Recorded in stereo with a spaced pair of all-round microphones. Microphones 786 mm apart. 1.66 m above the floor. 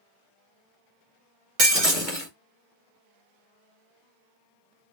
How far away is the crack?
I don't hear a crack.